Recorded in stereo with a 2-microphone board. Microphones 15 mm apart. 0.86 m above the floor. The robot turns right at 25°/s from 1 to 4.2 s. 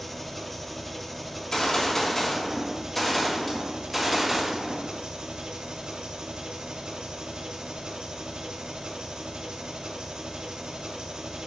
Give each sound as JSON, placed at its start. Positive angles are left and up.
{"t": 0.0, "sound": "an engine running", "azimuth_deg": 175, "distance_m": 0.9}
{"t": 1.4, "sound": "a gunshot", "azimuth_deg": 125, "distance_m": 1.9}